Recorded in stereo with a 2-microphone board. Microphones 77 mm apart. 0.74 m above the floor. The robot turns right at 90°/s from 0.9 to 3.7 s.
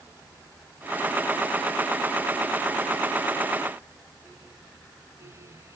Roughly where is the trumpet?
I don't hear a trumpet.